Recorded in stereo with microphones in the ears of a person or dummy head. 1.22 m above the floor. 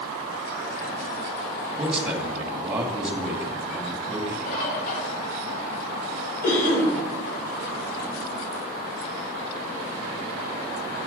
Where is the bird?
45° left (ahead or behind), 3.5 m.